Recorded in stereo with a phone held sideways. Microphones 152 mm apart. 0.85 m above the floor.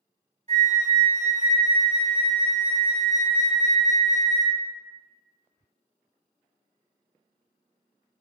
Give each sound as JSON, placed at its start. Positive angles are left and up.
{"t": 0.5, "sound": "a flute", "side_deg": -45, "distance_m": 1.4}